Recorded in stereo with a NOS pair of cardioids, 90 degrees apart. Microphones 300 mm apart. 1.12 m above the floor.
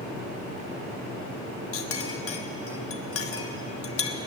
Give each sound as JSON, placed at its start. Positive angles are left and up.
{"t": 1.7, "sound": "a clink", "azimuth_deg": 50, "distance_m": 1.2}